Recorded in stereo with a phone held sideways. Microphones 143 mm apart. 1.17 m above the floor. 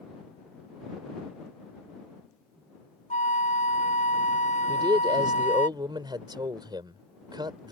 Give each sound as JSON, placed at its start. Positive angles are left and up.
{"t": 3.1, "sound": "a flute", "side_deg": 55}
{"t": 4.7, "sound": "a man speaking", "side_deg": -30}